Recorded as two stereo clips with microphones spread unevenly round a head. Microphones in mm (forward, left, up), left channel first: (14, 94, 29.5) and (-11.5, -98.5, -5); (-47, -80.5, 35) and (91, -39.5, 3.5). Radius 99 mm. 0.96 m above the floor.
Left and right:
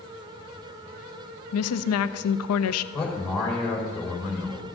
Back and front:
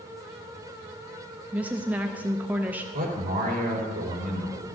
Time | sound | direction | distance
1.5 | a woman speaking | 95° left | 0.6 m
2.9 | a man speaking | 5° right | 4 m